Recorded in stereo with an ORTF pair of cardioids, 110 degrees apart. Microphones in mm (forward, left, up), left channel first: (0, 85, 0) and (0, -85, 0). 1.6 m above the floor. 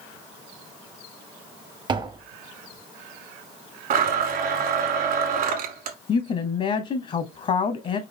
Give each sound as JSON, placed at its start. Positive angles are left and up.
{"t": 1.9, "sound": "tapping", "azimuth_deg": -25, "distance_m": 0.6}
{"t": 3.9, "sound": "a blender", "azimuth_deg": -60, "distance_m": 1.4}
{"t": 6.1, "sound": "a woman speaking", "azimuth_deg": 40, "distance_m": 0.7}